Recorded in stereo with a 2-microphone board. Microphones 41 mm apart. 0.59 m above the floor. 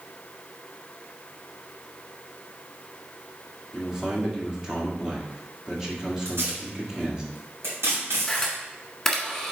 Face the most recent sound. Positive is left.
turn(degrees=5)  # may be behind; listen again after turning